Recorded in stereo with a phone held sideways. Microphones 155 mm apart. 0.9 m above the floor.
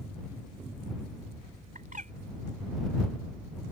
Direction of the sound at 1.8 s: 60° right (ahead or behind).